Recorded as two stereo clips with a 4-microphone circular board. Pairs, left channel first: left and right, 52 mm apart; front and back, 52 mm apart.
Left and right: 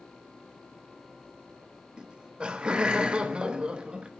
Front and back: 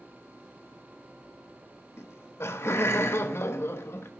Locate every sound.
2.0 s laughter: 20° right, 0.9 m